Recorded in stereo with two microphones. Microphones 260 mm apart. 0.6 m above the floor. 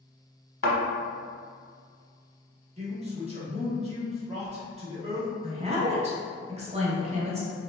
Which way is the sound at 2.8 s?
25° right (ahead or behind).